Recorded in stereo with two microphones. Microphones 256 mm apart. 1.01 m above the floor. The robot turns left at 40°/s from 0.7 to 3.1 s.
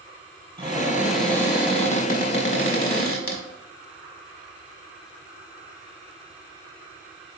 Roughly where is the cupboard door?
Behind.